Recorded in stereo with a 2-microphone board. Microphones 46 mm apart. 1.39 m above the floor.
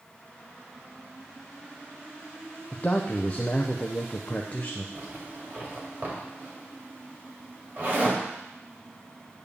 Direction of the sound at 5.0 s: 40° right (ahead or behind).